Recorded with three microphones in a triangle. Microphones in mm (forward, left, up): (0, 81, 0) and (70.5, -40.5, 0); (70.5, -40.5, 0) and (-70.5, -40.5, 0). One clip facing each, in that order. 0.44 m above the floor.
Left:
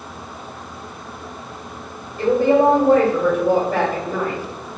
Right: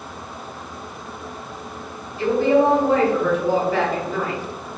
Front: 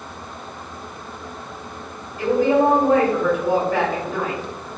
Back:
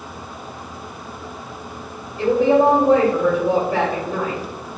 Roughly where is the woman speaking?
Behind left.